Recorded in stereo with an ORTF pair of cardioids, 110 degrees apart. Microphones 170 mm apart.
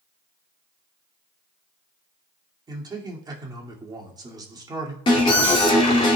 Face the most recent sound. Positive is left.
turn(degrees=30)